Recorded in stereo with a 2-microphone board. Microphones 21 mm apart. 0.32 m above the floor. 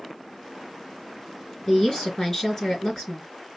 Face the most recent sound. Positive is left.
turn(degrees=30)  # may be behind; listen again after turning